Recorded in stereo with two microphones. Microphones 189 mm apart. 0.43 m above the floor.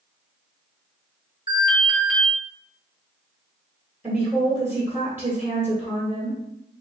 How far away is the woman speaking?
About 1.2 m.